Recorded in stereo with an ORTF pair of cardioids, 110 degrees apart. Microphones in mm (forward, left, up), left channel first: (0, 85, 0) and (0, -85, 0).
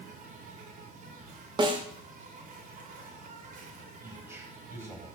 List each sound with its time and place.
0.0 s an insect: 50° right, 5 m
1.6 s a snare drum: 30° right, 2.5 m
4.0 s a man speaking: 15° right, 9.5 m